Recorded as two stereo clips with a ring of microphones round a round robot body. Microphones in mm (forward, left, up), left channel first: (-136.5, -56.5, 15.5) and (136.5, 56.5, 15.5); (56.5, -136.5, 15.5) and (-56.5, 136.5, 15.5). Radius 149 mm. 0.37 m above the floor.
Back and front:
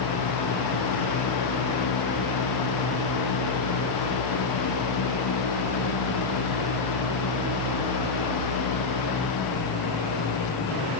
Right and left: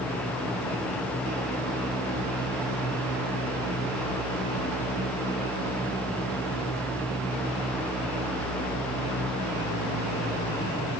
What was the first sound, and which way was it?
Only background noise.